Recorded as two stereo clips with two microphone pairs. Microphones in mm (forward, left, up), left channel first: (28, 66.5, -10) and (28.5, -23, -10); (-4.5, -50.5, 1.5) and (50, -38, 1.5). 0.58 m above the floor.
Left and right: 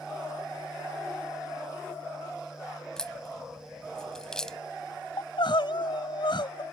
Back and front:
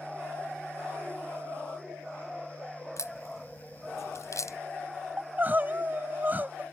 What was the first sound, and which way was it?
A crack, 170° left.